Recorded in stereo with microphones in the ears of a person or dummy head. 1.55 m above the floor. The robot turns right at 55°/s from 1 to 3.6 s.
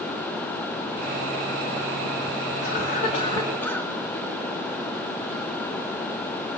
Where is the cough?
120° left, 2 m; by 3.9 s 175° left, 2 m.